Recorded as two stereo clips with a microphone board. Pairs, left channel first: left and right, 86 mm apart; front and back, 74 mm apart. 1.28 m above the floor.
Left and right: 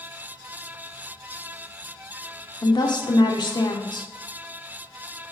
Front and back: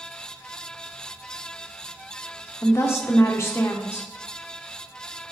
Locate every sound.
2.6 s a woman speaking: 55° left, 0.7 m